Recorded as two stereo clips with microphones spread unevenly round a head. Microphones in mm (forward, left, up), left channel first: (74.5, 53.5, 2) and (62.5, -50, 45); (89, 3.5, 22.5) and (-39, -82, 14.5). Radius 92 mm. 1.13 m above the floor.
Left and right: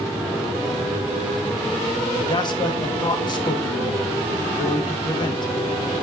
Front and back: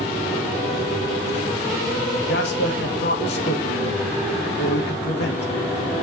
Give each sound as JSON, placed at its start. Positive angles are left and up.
{"t": 2.3, "sound": "a man speaking", "azimuth_deg": 50, "distance_m": 1.8}